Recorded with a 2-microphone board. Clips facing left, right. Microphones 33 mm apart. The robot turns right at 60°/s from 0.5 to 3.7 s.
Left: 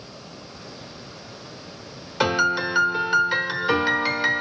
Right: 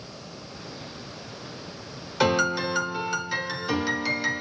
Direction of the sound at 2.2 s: 15° left (ahead or behind).